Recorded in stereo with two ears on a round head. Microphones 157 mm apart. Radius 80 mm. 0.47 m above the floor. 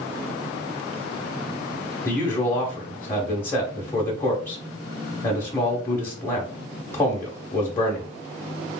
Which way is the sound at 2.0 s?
15° left (ahead or behind).